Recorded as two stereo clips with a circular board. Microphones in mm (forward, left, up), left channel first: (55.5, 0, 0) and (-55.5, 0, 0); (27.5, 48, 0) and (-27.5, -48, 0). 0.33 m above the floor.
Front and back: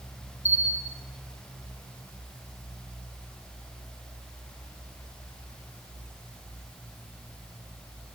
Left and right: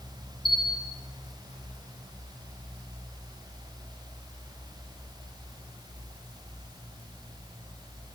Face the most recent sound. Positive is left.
turn(degrees=105)